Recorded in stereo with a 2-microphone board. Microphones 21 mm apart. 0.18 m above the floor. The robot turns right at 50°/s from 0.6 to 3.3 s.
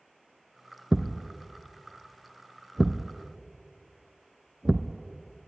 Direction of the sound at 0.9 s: 35° right (ahead or behind).